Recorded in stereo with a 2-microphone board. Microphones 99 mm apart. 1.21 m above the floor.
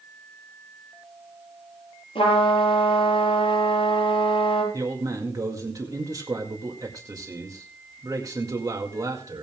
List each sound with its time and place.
2.1 s a trumpet: 70° left (ahead or behind), 6.5 m
4.7 s a man speaking: 40° right (ahead or behind), 2 m